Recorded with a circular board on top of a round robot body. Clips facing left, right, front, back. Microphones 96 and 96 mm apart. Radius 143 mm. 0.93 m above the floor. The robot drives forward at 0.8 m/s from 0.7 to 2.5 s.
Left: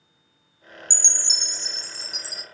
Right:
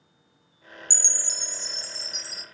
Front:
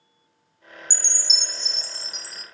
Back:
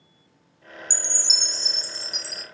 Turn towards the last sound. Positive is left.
turn(degrees=170)